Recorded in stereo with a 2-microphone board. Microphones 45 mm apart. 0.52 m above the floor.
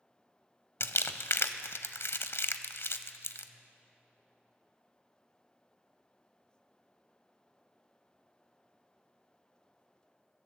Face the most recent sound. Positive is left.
turn(degrees=70)  # may be behind; listen again after turning